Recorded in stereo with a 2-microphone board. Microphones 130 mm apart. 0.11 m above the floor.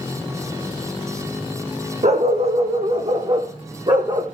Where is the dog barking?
60° right (ahead or behind), 1.9 m; by 4.2 s 35° right (ahead or behind), 2.5 m.